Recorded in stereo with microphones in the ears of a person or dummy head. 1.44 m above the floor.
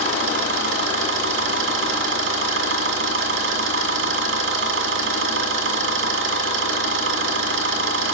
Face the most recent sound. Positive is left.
turn(degrees=-75)  # may be behind; listen again after turning